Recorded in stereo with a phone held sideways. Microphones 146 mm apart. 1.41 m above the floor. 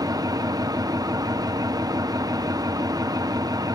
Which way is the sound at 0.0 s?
25° right (ahead or behind).